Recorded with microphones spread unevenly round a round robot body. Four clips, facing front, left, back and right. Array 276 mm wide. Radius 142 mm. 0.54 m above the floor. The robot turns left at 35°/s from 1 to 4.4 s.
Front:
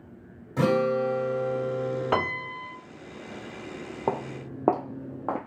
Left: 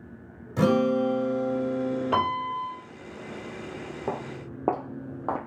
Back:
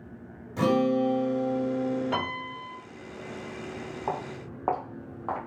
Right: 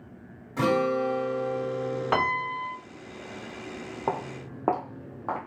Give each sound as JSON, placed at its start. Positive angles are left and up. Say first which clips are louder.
{"t": 0.6, "sound": "a guitar", "louder": "left 2 dB, even", "azimuth_deg": 45, "distance_m": 2.0}
{"t": 2.1, "sound": "a piano", "louder": "right 1 dB, front 4 dB", "azimuth_deg": -10, "distance_m": 1.8}
{"t": 4.1, "sound": "footsteps", "louder": "right 3 dB, front 4 dB", "azimuth_deg": -5, "distance_m": 1.0}